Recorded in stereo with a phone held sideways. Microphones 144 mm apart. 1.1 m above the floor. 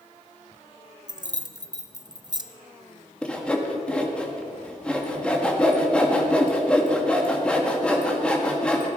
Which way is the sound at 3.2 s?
5° left (ahead or behind).